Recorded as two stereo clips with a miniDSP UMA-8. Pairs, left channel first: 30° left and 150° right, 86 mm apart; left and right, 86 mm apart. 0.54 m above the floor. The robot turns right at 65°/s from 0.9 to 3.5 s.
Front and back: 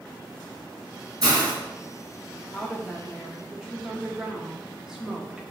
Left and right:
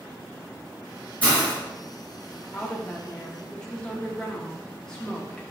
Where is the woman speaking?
85° left, 0.6 m; by 5.4 s 145° left, 0.6 m.